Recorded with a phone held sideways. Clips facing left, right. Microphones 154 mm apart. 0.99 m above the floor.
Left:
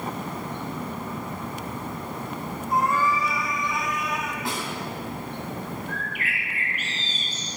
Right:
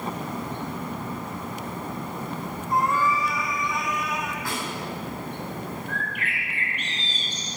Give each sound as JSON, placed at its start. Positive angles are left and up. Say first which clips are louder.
{"t": 2.7, "sound": "a cat meowing", "louder": "even", "side_deg": 0, "distance_m": 3.5}
{"t": 4.5, "sound": "a snare drum", "louder": "left 1 dB", "side_deg": 20, "distance_m": 8.5}
{"t": 5.9, "sound": "a bird", "louder": "even", "side_deg": 5, "distance_m": 5.0}